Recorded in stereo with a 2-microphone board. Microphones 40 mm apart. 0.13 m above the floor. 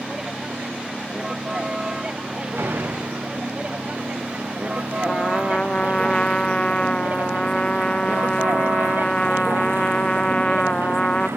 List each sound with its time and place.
0.0 s a vehicle: 15° right (ahead or behind); by 11.4 s 75° right (ahead or behind)
2.5 s a door slam: 85° right
5.0 s a trumpet: 25° left (ahead or behind)